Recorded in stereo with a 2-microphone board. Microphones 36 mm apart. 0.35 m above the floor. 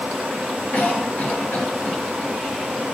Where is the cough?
50° left (ahead or behind), 1.7 m.